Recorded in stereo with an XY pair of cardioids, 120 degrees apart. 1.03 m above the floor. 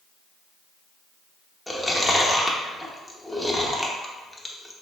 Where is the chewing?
10° left, 0.6 m.